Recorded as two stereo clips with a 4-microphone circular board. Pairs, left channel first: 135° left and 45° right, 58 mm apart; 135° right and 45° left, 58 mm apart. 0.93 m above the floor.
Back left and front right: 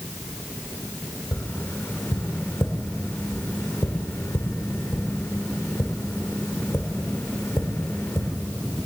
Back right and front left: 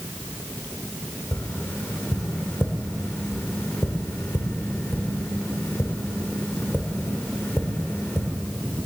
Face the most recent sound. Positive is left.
turn(degrees=170)